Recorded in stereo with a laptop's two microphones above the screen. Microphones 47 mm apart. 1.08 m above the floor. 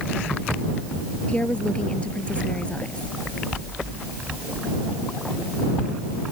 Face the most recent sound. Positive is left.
turn(degrees=25)  # may be behind; listen again after turning